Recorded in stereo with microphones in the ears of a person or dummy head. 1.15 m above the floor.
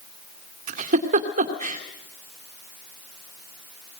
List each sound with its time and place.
0.7 s a giggle: 40° right (ahead or behind), 2 m